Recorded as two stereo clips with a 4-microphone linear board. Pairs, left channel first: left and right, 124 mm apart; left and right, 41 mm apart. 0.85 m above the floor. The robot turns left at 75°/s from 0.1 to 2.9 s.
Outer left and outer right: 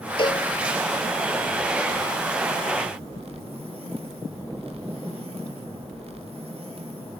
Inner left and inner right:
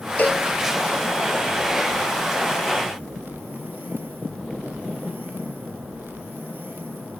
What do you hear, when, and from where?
0.2 s a cowbell: 45° left (ahead or behind); by 0.5 s 25° left (ahead or behind)